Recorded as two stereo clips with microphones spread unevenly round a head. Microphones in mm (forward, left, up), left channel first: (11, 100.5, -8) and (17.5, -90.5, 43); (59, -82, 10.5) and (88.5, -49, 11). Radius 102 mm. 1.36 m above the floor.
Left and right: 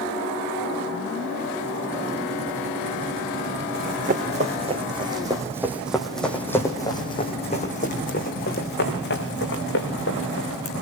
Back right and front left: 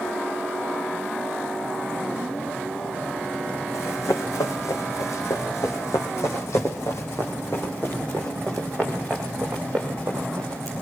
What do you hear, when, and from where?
3.7 s running footsteps: 130° right, 5 m; by 10.7 s 125° left, 7.5 m